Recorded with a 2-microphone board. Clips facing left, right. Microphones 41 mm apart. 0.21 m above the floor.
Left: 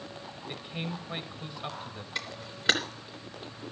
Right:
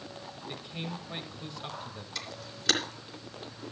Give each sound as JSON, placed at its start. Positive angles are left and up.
{"t": 0.5, "sound": "a man speaking", "side_deg": 20, "distance_m": 1.3}
{"t": 2.1, "sound": "a camera shutter", "side_deg": 20, "distance_m": 3.5}